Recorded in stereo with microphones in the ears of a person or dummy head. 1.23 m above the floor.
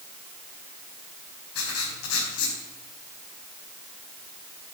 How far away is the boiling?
No boiling in this recording.